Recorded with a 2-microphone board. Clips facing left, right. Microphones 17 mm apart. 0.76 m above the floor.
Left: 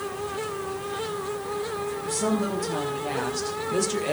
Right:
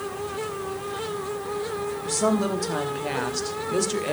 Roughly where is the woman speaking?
Right.